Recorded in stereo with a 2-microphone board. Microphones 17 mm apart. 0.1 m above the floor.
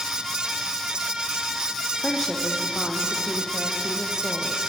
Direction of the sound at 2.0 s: 35° left (ahead or behind).